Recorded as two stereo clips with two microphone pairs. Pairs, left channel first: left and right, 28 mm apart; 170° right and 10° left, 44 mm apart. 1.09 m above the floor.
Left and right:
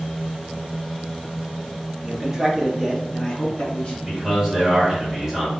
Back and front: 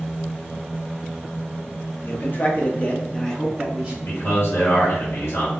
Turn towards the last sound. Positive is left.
turn(degrees=-170)